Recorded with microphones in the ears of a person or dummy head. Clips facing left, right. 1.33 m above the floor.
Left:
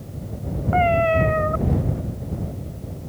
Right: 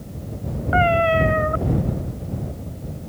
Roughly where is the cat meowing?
Centre.